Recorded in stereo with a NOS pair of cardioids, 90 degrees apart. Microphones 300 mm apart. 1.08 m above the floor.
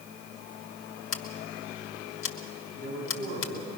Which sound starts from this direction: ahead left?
Scissors, at 1.1 s.